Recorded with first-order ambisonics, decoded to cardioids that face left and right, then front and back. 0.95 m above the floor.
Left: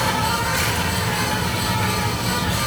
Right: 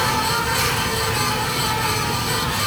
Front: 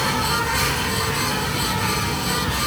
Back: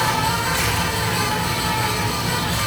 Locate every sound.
0.0 s an insect: 105° left, 5 m